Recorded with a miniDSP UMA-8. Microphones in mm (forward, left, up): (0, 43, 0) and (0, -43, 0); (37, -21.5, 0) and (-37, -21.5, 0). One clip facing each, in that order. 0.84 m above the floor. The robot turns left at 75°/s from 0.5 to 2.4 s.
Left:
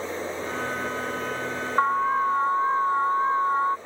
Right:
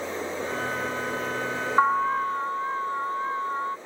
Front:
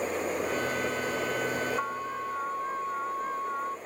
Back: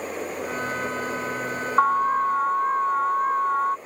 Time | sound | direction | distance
1.8 | an alarm | 170° right | ?